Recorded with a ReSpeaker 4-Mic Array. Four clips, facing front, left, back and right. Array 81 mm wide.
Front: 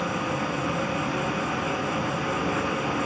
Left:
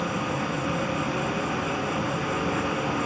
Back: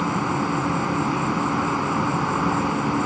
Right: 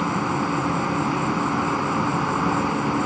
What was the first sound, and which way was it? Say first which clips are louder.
An insect: right 5 dB, back 4 dB; 135° right.